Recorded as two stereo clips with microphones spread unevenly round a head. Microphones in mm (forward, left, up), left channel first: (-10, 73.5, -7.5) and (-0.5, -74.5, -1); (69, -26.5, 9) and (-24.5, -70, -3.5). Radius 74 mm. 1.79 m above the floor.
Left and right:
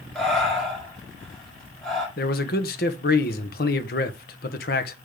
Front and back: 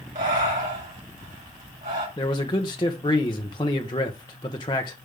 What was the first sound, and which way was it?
Breathing, straight behind.